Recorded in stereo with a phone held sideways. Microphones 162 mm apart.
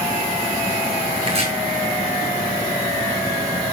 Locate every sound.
1.2 s chopping: 35° right (ahead or behind), 4 m